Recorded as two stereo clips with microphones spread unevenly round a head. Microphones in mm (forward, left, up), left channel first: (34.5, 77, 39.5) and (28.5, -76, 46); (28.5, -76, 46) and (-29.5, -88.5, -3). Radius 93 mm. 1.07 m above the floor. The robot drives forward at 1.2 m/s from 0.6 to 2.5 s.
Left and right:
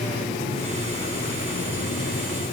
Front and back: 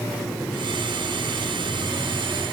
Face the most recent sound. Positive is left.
No sound to turn to.